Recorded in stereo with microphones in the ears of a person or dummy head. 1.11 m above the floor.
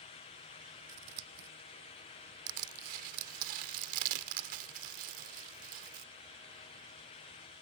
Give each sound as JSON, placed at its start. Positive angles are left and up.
{"t": 0.9, "sound": "scissors", "side_deg": -55}
{"t": 2.5, "sound": "crushing", "side_deg": -45}